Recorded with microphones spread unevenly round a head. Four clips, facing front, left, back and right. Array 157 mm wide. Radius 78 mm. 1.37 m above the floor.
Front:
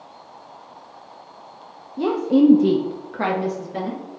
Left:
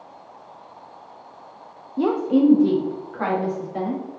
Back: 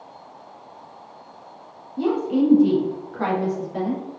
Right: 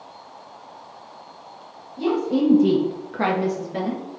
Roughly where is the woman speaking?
Ahead left.